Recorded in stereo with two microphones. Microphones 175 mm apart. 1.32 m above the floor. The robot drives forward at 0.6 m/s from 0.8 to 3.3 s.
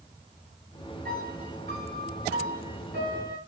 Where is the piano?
70° right (ahead or behind), 6 m; by 3.4 s 80° right, 5.5 m.